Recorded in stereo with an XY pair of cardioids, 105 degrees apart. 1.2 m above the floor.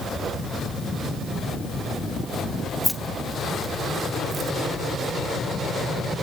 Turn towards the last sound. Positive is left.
turn(degrees=-50)